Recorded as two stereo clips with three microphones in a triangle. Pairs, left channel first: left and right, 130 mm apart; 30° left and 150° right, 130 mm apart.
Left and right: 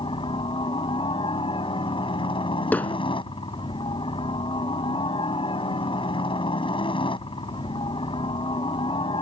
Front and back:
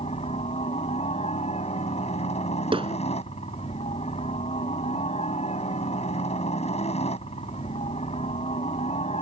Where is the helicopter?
50° left.